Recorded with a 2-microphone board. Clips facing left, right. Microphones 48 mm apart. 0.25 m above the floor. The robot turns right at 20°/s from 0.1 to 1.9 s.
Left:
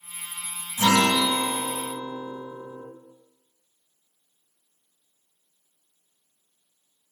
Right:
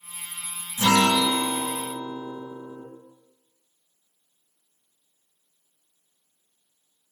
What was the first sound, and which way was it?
A guitar, 35° left (ahead or behind).